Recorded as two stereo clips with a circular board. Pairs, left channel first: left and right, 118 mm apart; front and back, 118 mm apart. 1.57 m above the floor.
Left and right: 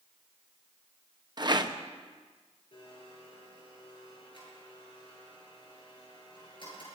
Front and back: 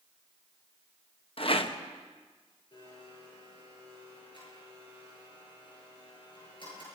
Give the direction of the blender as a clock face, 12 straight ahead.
10 o'clock.